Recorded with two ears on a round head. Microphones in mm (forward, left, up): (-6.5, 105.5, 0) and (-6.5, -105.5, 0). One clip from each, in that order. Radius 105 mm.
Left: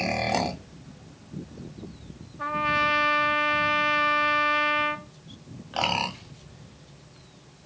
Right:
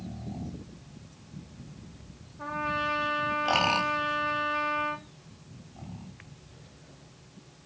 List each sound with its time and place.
2.4 s a trumpet: 30° left (ahead or behind), 0.6 m